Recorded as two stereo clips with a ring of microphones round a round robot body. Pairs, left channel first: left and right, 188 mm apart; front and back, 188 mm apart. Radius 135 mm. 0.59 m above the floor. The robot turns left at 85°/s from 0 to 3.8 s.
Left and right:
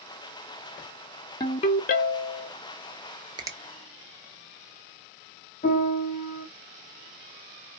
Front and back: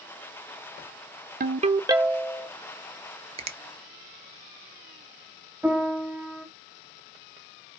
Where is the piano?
105° left, 1.2 m.